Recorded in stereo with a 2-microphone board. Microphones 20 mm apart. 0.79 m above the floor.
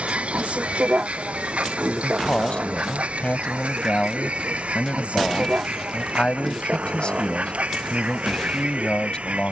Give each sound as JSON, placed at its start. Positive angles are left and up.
{"t": 0.0, "sound": "a vehicle", "side_deg": -85}
{"t": 2.0, "sound": "a man speaking", "side_deg": 55}